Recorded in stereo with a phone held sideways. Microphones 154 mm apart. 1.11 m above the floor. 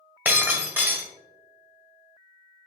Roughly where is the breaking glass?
Centre.